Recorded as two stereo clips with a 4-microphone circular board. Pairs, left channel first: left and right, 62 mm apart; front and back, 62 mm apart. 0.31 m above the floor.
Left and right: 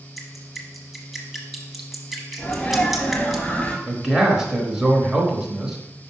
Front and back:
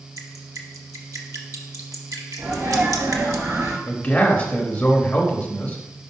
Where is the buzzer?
No buzzer in this recording.